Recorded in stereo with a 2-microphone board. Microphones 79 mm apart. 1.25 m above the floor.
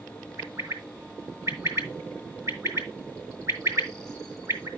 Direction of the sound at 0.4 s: 40° right (ahead or behind).